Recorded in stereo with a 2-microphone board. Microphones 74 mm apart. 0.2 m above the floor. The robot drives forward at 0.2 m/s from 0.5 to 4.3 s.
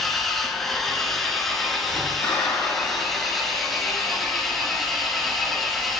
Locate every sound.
0.0 s an engine running: 5° left (ahead or behind), 1.1 m; by 6.0 s centre (ahead or behind), 1.9 m
2.2 s a clap: 40° left (ahead or behind), 3 m; by 3.5 s 35° left (ahead or behind), 3.5 m